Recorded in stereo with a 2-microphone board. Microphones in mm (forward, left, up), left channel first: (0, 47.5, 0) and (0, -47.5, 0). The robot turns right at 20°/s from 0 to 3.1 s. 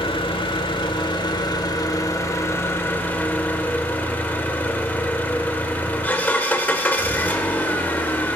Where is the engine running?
95° left, 1.2 m; by 8.4 s 160° left, 1.2 m.